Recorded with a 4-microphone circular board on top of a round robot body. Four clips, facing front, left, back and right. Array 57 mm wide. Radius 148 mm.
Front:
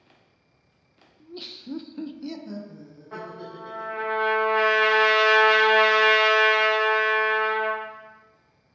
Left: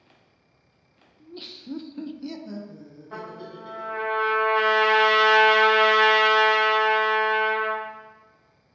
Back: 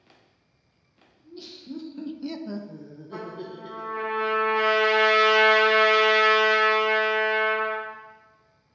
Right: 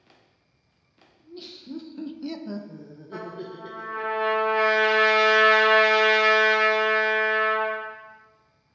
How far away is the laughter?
About 0.7 m.